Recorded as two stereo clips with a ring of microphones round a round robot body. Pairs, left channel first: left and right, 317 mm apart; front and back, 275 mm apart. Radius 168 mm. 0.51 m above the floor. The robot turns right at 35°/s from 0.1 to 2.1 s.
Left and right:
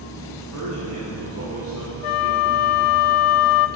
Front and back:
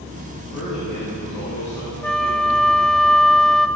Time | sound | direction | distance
0.3 | a man speaking | 55° right | 4.5 m
2.0 | a flute | 85° left | 0.6 m